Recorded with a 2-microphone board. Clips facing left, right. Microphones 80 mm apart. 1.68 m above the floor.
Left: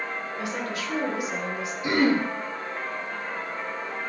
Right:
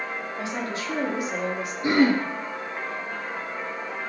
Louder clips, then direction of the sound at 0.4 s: Right 1 dB; 30° right (ahead or behind).